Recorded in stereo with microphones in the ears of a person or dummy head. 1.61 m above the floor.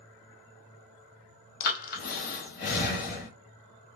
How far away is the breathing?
About 0.8 m.